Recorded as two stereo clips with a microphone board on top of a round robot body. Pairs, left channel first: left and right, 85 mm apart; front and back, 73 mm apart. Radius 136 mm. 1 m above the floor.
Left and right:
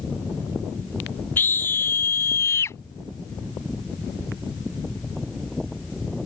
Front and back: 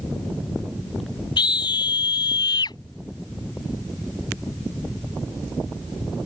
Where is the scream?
20° left; by 2.8 s 30° left.